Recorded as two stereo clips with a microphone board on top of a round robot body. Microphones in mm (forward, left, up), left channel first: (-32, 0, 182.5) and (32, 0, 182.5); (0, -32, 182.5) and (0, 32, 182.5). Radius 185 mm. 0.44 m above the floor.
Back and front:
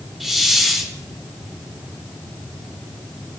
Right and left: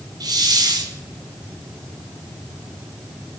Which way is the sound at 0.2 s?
85° left.